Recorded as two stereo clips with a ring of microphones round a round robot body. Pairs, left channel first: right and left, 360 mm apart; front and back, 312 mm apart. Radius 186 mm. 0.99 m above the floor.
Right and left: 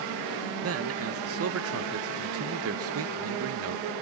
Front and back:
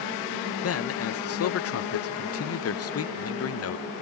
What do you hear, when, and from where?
0.6 s a man speaking: 40° left, 0.7 m